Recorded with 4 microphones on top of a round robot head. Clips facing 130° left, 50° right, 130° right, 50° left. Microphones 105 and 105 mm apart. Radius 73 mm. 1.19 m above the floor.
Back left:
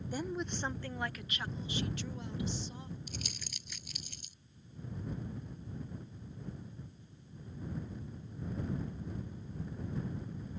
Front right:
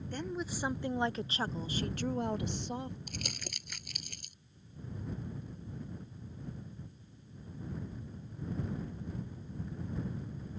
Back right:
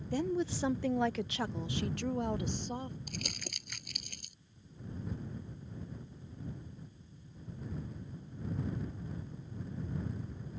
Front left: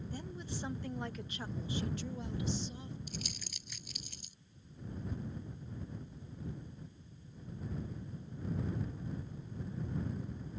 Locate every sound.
0.1 s a woman speaking: 150° right; by 3.0 s 85° right
3.1 s crumpling: 90° right